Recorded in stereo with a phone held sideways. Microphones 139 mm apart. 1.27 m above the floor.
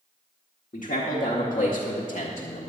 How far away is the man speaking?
About 1.5 m.